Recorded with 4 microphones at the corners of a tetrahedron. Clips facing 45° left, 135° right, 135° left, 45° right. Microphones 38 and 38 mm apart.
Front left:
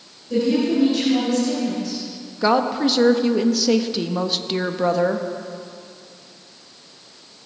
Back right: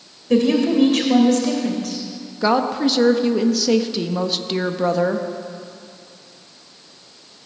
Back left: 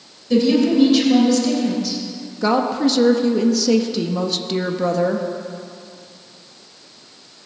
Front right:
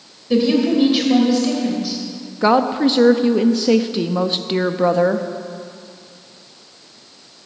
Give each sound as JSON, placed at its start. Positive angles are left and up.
{"t": 0.3, "sound": "a woman speaking", "azimuth_deg": -120, "distance_m": 2.5}
{"t": 2.4, "sound": "a woman speaking", "azimuth_deg": -45, "distance_m": 0.7}